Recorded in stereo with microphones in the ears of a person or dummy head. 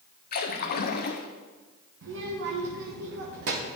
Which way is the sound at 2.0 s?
65° right (ahead or behind).